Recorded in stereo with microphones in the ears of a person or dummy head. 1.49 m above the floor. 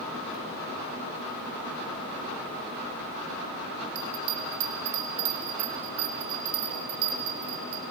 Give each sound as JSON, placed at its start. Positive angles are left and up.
{"t": 4.0, "sound": "a bell", "side_deg": -90, "distance_m": 4.0}